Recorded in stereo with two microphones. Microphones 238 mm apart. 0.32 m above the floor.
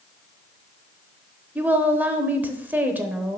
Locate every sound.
1.6 s a woman speaking: 10° right (ahead or behind), 0.8 m